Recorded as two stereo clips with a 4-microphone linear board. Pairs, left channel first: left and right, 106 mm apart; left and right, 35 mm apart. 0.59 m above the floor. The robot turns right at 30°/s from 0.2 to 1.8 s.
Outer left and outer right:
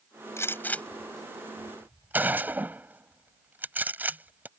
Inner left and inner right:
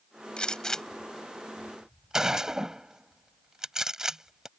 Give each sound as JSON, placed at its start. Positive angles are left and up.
{"t": 0.4, "sound": "a gunshot", "side_deg": 25}